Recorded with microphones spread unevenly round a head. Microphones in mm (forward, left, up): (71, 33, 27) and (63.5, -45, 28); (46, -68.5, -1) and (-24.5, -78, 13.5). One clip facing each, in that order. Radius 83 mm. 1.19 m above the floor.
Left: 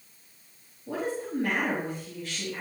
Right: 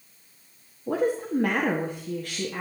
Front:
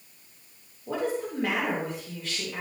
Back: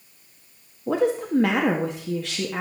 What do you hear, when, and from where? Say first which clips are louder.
0.9 s a woman speaking: right 6 dB, back 7 dB; 155° right, 1.5 m